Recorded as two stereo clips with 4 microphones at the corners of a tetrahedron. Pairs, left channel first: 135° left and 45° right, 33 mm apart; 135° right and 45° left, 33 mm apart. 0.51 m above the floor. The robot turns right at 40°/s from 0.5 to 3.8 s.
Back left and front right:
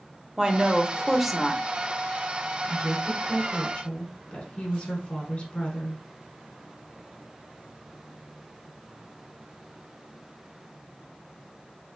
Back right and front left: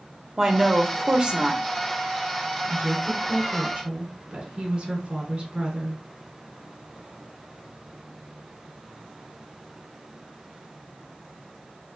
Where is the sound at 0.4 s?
5° right, 0.8 m; by 1.6 s 40° left, 0.8 m.